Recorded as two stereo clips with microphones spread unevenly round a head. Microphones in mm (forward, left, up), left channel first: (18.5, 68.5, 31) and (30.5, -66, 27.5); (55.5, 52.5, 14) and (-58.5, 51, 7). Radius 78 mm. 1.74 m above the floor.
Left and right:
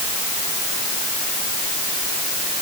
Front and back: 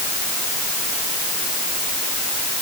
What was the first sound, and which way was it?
Only background noise.